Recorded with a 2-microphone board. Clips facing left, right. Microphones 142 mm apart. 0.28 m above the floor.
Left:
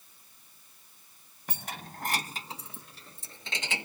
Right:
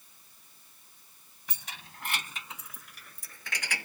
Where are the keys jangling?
55° left (ahead or behind); by 3.9 s 20° left (ahead or behind).